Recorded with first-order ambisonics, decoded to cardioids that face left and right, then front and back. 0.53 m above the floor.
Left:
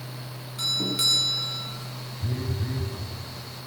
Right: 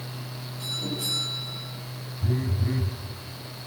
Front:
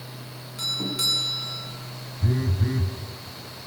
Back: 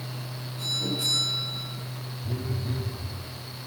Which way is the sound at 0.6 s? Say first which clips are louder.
Left 7 dB, front 2 dB; 50° left.